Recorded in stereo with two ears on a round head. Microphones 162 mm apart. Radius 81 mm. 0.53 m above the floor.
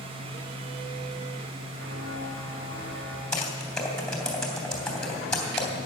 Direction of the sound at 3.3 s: 5° left (ahead or behind).